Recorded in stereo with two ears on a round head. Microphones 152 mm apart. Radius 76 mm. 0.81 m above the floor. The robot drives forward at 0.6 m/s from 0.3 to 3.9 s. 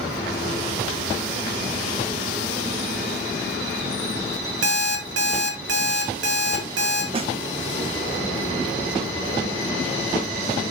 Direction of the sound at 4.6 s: 85° right.